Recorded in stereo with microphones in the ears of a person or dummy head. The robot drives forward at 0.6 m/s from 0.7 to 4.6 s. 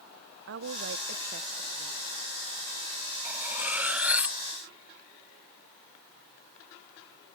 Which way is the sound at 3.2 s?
10° right (ahead or behind).